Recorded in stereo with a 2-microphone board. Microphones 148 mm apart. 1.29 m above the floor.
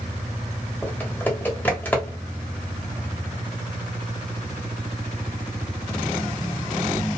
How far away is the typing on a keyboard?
About 1.4 m.